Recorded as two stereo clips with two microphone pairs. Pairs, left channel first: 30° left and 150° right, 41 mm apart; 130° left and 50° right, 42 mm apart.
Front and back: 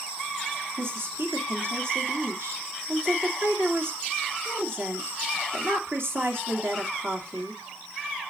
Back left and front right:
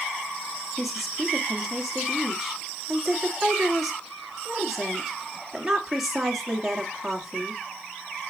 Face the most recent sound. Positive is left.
turn(degrees=-130)